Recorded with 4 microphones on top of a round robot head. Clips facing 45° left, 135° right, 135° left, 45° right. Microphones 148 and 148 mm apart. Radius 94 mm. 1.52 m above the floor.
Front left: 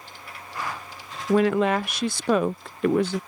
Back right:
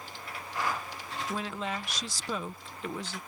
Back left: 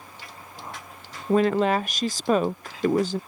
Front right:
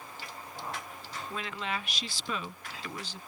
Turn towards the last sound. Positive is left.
turn(degrees=80)